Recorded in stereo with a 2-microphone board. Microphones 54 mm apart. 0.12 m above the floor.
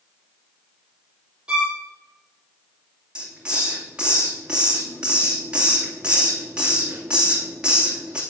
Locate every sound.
1.5 s a violin: 20° right (ahead or behind), 2.5 m
3.1 s a hiss: 15° right (ahead or behind), 2.5 m